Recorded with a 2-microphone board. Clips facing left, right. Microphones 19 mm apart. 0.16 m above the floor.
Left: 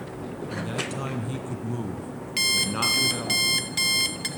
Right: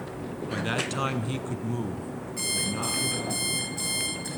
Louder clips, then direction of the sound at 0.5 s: Right 3 dB; 50° right (ahead or behind).